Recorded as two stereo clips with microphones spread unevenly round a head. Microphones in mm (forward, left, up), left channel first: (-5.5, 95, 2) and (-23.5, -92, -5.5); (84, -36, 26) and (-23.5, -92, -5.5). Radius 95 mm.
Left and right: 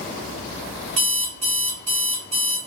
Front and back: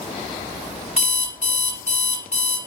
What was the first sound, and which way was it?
An alarm clock, 60° right.